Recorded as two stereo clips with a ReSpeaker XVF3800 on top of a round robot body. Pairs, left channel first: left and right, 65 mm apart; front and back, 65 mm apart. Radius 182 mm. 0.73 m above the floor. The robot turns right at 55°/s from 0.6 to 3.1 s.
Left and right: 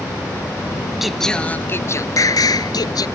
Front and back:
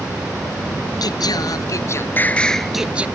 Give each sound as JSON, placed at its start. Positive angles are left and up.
{"t": 1.0, "sound": "singing", "azimuth_deg": -5}